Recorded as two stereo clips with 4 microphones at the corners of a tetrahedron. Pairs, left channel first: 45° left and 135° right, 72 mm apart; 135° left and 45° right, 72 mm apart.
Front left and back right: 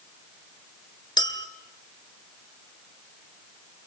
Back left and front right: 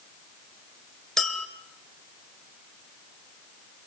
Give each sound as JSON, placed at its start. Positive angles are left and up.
{"t": 1.2, "sound": "a clink", "azimuth_deg": 50, "distance_m": 1.7}